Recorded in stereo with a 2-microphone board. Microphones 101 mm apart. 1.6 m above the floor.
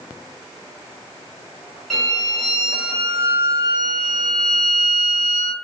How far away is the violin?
About 1.4 m.